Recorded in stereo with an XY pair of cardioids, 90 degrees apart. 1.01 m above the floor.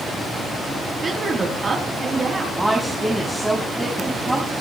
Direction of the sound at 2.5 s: 10° right.